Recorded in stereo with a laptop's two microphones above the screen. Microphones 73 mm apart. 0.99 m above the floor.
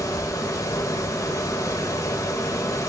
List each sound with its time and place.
0.0 s a fan: 45° left (ahead or behind), 0.9 m